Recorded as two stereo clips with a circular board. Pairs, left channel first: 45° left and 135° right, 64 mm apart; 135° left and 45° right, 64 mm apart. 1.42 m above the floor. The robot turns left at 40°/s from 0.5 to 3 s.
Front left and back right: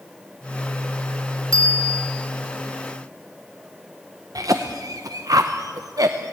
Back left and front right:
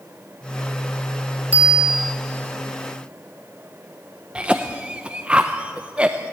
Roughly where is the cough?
Behind right.